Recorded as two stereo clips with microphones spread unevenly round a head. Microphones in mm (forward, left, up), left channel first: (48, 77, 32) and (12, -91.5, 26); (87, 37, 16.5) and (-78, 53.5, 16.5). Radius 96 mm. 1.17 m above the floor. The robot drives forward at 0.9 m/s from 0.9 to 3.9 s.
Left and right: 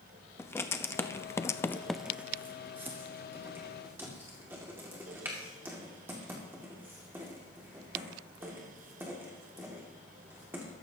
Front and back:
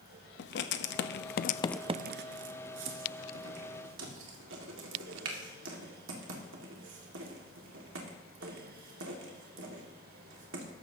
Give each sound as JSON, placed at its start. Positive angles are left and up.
{"t": 0.4, "sound": "writing", "azimuth_deg": 5, "distance_m": 0.8}